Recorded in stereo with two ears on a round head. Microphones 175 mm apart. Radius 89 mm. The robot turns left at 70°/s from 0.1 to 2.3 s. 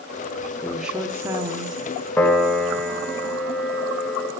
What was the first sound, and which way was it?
A woman speaking, centre (ahead or behind).